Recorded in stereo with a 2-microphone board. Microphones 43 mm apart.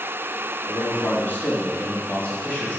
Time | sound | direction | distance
0.7 | a man speaking | 50° left (ahead or behind) | 2.5 m